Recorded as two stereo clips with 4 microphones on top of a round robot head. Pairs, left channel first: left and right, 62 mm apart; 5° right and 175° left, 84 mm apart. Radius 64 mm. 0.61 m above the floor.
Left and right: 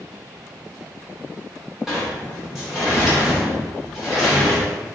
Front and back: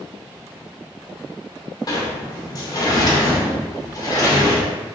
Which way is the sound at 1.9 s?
5° right.